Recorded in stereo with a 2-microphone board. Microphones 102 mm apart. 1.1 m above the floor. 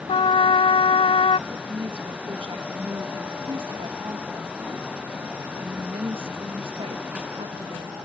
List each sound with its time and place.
0.1 s a trumpet: 70° left (ahead or behind)
1.5 s a woman speaking: 65° right (ahead or behind)